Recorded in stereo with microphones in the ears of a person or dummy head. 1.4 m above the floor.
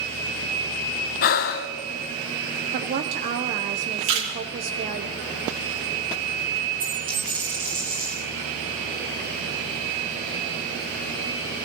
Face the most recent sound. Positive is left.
turn(degrees=-25)  # may be behind; listen again after turning